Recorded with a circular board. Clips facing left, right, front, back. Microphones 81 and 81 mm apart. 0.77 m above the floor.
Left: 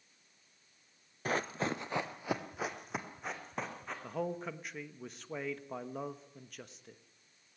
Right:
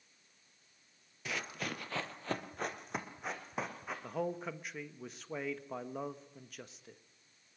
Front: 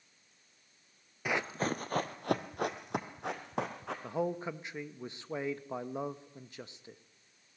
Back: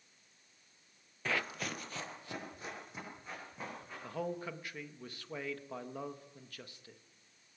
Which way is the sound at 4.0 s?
Straight ahead.